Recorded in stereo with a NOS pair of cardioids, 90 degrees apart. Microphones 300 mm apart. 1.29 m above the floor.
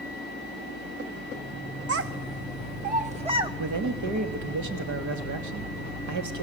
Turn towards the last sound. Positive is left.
turn(degrees=-70)